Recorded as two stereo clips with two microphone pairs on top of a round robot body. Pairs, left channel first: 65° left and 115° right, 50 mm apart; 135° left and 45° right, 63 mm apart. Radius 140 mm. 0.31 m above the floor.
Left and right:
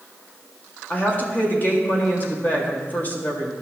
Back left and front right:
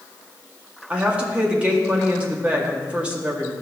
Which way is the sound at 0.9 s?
20° left.